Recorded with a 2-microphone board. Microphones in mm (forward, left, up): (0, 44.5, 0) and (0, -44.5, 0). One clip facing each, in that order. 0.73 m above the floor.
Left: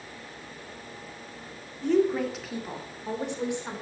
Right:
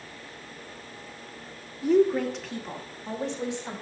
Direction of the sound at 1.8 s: 5° right (ahead or behind).